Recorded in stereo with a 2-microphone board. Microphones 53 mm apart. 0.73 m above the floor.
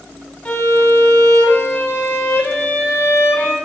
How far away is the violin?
About 1.8 m.